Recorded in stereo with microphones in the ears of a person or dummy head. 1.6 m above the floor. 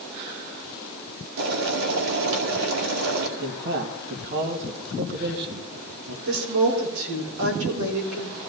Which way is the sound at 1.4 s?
85° right.